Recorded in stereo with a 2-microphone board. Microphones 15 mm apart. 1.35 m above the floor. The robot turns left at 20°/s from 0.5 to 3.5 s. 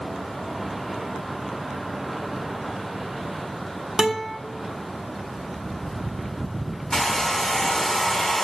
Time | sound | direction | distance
4.0 | a guitar | 45° right (ahead or behind) | 1.4 m
6.9 | a hair dryer | 50° left (ahead or behind) | 2.5 m